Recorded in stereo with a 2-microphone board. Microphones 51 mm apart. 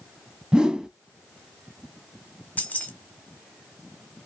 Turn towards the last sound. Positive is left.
turn(degrees=30)  # may be behind; listen again after turning